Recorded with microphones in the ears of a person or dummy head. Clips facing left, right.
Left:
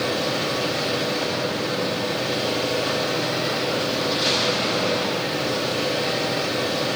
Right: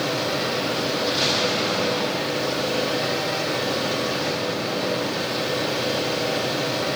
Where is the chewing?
No chewing in this recording.